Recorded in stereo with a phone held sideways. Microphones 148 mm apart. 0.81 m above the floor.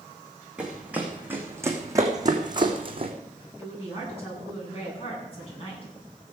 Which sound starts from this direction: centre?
Running footsteps, at 0.6 s.